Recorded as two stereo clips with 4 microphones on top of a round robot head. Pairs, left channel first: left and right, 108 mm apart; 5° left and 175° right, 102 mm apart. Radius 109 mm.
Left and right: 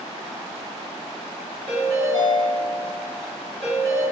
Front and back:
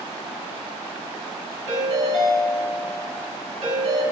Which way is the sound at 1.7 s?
175° left.